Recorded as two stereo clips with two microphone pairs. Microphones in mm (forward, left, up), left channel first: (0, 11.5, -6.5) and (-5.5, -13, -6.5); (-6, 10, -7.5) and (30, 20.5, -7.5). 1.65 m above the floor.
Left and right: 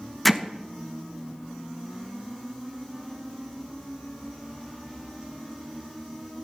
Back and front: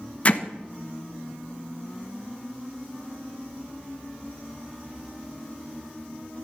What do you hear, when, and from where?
0.2 s hammering: 165° left, 0.9 m